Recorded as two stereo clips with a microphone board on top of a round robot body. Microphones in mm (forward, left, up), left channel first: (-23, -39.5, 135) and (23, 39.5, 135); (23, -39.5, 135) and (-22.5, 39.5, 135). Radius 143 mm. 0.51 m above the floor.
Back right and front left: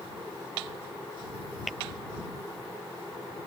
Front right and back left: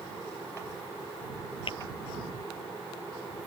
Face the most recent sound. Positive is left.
turn(degrees=-30)